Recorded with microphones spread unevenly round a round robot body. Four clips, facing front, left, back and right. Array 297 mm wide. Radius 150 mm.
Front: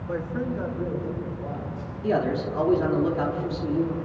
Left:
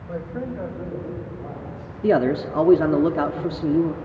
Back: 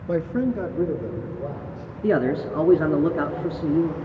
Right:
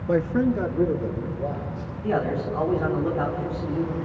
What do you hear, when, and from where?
0.1 s a man speaking: 100° right, 0.8 m; by 1.9 s 130° right, 3.5 m
2.0 s a man speaking: 130° left, 1.2 m